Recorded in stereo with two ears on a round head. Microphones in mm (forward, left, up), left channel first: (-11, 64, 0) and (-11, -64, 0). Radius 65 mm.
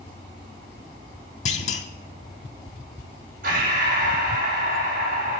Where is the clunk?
50° left (ahead or behind), 0.8 m.